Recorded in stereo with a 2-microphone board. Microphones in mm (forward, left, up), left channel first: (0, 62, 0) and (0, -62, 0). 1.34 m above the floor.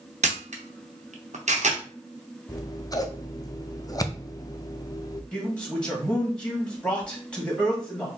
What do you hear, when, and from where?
0.2 s a camera shutter: 65° right (ahead or behind), 0.9 m
2.5 s scissors: 30° left (ahead or behind), 0.5 m
5.3 s a man speaking: 10° left (ahead or behind), 2.0 m